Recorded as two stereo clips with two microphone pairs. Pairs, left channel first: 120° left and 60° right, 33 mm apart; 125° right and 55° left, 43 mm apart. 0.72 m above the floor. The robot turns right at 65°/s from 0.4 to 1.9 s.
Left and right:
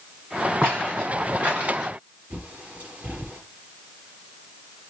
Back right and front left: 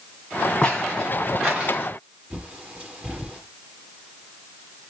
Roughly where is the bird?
Ahead.